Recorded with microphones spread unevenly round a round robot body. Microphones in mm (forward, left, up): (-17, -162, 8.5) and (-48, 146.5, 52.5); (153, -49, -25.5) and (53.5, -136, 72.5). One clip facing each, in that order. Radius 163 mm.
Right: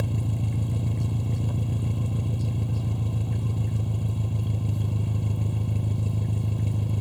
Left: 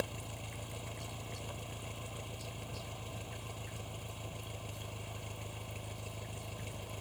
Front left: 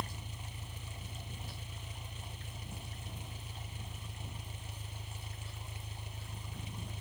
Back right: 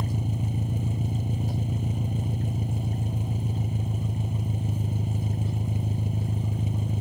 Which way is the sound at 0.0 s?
130° right.